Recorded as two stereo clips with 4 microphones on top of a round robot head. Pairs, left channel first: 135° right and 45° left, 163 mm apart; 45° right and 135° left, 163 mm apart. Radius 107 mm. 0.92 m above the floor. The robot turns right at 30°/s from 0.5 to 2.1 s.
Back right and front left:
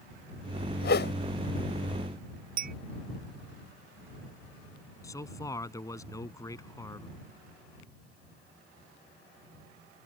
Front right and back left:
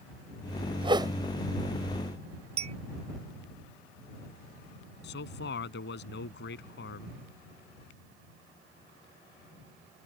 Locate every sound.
0.8 s a whoosh: 165° right; by 1.1 s 155° right
2.6 s a clink: 80° left
5.0 s a man speaking: 65° right